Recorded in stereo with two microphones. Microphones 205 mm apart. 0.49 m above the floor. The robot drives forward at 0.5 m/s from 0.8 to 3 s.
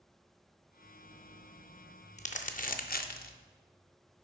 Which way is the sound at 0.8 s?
35° left (ahead or behind).